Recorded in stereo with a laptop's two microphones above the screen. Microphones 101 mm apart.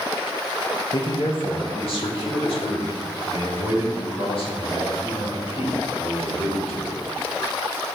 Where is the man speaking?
50° left (ahead or behind), 1.1 m; by 6.9 s 75° left (ahead or behind), 7.5 m.